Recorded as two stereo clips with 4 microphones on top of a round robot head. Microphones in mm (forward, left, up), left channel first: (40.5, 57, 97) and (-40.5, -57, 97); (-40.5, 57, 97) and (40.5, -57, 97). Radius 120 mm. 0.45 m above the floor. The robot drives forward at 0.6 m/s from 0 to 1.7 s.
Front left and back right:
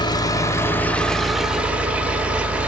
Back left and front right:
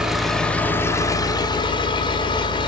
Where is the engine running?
30° left, 1.0 m; by 2.7 s 160° left, 1.1 m.